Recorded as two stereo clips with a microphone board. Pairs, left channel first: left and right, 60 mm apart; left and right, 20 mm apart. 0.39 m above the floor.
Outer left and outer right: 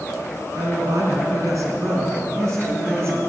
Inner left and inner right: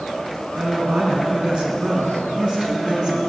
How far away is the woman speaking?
About 3.5 m.